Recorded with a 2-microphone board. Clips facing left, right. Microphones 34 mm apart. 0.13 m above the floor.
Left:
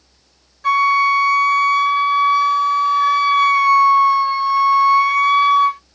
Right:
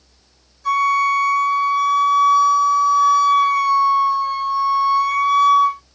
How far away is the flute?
About 0.8 m.